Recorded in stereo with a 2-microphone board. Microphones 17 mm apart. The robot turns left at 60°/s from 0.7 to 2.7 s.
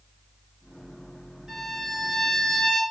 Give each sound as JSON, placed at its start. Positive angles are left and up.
{"t": 1.5, "sound": "a violin", "azimuth_deg": -140, "distance_m": 4.0}